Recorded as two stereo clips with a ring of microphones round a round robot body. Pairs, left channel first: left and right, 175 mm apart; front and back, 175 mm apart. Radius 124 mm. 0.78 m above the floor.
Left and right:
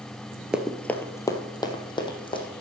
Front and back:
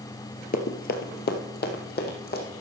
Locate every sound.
0.5 s running footsteps: 10° right, 0.9 m; by 2.6 s 30° left, 3 m